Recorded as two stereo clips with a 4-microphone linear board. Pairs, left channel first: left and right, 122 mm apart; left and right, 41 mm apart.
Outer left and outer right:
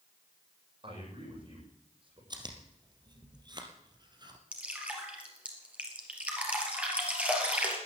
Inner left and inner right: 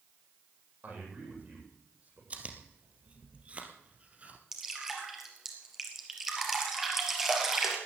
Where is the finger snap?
I don't hear a finger snap.